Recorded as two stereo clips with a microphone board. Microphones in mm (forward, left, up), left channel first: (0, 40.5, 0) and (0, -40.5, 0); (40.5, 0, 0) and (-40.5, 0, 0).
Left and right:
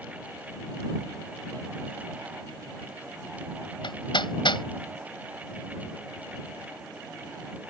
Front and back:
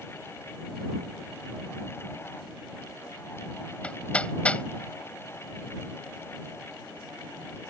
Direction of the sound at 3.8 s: 75° left.